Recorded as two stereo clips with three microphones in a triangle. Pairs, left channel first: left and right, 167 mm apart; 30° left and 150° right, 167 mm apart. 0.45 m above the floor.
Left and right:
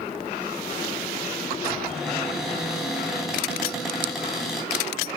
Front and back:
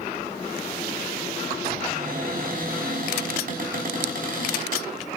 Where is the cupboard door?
Straight behind, 3.5 m.